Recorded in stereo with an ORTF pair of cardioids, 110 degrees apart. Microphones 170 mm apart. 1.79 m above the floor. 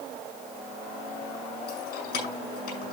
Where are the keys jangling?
70° left, 6 m.